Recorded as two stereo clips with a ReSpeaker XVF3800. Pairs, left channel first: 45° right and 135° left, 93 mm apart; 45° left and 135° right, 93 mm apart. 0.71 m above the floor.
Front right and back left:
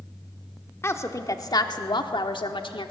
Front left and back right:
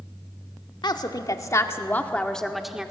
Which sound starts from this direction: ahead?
A woman speaking, at 0.8 s.